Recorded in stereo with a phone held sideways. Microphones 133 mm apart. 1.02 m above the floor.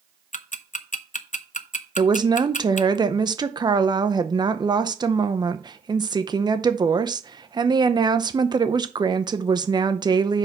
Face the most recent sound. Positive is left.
turn(degrees=-30)  # may be behind; listen again after turning